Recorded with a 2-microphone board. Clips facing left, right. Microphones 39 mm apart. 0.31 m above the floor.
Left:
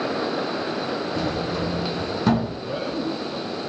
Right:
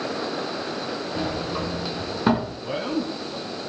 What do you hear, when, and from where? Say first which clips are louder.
1.1 s a sliding door: left 2 dB; 20° right (ahead or behind), 3.5 m
2.6 s a man speaking: even; 60° right (ahead or behind), 2.5 m